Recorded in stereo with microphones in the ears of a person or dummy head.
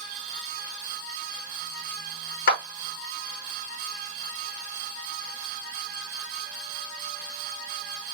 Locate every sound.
2.5 s a clap: 55° left (ahead or behind), 1.2 m